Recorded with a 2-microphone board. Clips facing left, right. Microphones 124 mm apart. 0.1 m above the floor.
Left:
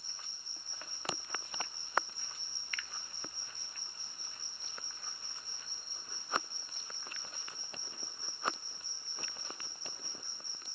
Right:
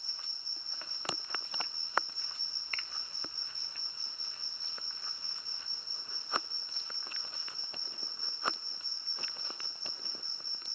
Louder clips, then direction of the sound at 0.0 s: Even; 75° right (ahead or behind).